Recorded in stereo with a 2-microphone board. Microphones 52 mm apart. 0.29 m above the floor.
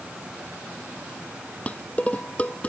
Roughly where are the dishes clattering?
Left.